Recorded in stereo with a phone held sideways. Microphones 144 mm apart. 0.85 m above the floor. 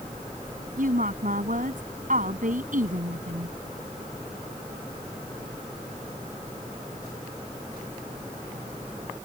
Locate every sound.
0.8 s a woman speaking: 65° right (ahead or behind)